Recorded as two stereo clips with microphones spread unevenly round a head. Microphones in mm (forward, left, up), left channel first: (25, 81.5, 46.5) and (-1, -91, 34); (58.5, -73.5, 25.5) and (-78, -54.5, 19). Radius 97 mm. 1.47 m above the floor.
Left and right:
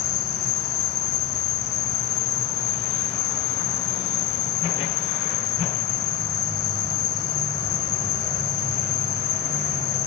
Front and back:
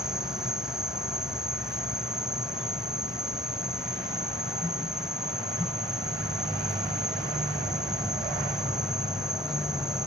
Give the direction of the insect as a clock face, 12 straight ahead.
9 o'clock.